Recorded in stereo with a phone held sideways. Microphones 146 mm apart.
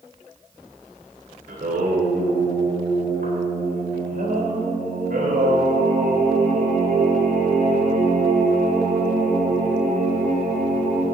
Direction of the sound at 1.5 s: 70° right (ahead or behind).